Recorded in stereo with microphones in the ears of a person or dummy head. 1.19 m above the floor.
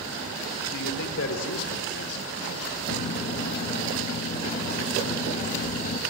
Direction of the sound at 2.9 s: 45° left (ahead or behind).